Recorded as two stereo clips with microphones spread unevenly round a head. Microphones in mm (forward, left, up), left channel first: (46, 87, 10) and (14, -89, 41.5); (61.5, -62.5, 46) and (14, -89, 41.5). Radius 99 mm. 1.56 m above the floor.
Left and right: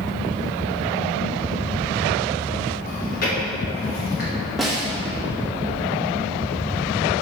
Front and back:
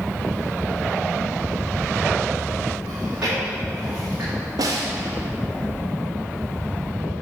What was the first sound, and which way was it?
Chewing, 130° left.